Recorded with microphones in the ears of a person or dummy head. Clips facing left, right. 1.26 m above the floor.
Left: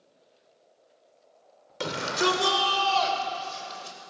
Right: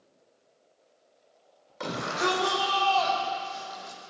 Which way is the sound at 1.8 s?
50° left (ahead or behind).